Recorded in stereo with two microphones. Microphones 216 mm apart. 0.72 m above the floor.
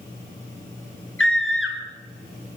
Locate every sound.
1.2 s a scream: 80° left, 4 m